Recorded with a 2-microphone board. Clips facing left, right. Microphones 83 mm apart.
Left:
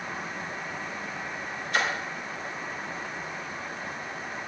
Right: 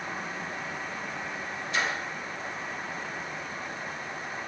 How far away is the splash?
About 1.2 m.